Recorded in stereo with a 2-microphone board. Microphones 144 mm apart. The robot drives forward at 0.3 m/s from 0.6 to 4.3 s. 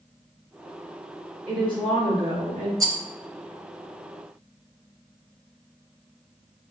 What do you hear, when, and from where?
1.5 s a woman speaking: 35° right (ahead or behind), 2 m; by 2.7 s 30° right (ahead or behind), 2.5 m
2.8 s a rattle: 25° right (ahead or behind), 0.7 m